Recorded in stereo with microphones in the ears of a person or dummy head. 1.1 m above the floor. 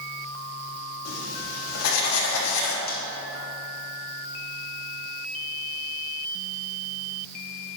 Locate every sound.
1.1 s writing: 85° left, 1.5 m
2.9 s a snare drum: 50° left (ahead or behind), 1.4 m